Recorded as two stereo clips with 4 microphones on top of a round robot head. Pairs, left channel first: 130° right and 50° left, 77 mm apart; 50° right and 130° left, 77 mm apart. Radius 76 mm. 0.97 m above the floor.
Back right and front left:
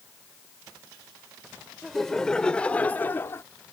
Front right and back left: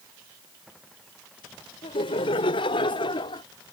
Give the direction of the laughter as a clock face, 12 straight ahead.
1 o'clock.